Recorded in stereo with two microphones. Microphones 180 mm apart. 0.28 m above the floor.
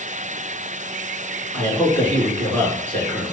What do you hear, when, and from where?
1.5 s a man speaking: 10° left (ahead or behind), 3.5 m